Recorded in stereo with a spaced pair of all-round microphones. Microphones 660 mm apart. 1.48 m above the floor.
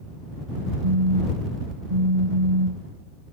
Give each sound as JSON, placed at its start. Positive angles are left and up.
{"t": 0.8, "sound": "a phone buzzing", "side_deg": -60}